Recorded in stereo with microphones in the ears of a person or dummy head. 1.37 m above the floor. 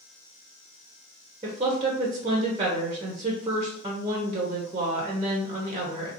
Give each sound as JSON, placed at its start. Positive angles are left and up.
{"t": 1.4, "sound": "a woman speaking", "side_deg": -20, "distance_m": 0.7}